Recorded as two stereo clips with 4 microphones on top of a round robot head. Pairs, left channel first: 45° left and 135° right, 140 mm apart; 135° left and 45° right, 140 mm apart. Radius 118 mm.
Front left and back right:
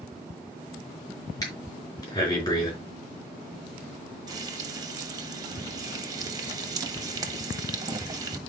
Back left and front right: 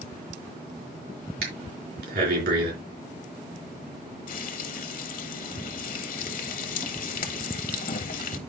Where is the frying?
160° left, 1.3 m.